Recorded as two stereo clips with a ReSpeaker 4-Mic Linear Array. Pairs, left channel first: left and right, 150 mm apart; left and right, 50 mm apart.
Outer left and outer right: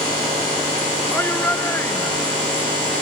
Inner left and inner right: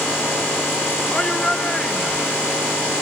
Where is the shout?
15° left (ahead or behind).